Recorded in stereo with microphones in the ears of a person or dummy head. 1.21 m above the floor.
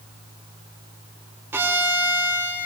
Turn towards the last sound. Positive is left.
turn(degrees=-10)  # may be behind; listen again after turning